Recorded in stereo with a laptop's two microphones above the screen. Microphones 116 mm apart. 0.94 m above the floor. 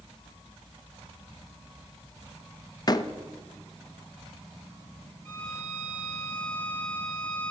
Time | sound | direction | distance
2.9 | a door slam | 35° left (ahead or behind) | 0.8 m
5.2 | a violin | 15° left (ahead or behind) | 2.5 m